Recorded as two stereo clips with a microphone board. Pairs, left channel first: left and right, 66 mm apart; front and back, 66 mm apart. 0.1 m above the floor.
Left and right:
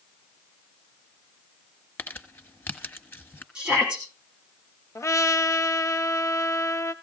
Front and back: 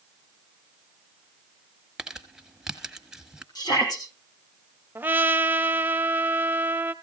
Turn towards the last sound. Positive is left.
turn(degrees=125)